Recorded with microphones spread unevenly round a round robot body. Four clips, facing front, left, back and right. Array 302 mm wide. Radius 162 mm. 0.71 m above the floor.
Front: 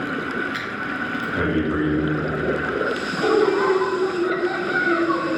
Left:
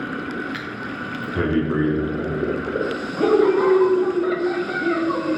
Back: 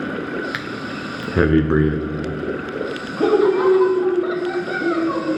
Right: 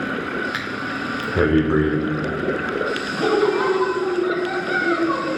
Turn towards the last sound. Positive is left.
turn(degrees=160)